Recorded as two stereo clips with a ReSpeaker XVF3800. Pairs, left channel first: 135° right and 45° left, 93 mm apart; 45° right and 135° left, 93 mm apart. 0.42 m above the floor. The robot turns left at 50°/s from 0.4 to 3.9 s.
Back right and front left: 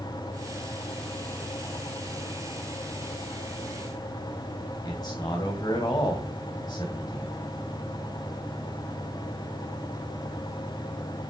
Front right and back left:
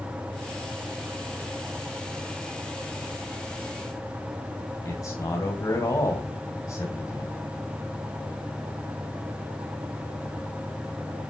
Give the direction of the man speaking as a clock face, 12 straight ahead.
3 o'clock.